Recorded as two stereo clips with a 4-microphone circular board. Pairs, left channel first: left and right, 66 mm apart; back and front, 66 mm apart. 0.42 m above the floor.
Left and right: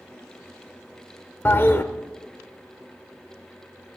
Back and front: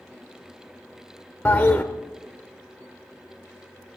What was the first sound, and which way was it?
A toilet flushing, 125° left.